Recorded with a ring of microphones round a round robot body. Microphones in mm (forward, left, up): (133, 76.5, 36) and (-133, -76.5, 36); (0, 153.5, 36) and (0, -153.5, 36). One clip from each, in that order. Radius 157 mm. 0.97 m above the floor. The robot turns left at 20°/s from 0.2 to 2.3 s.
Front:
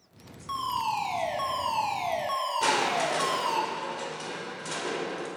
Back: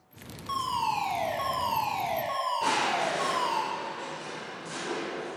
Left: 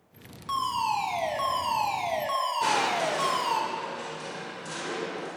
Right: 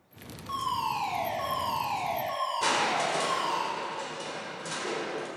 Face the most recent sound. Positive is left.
turn(degrees=-15)